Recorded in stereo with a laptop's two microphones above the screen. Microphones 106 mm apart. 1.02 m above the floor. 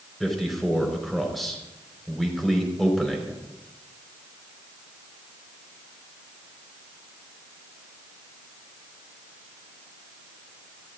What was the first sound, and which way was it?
A man speaking, centre (ahead or behind).